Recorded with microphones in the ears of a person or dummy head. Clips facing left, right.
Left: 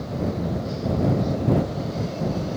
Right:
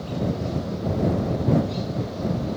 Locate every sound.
Only background noise.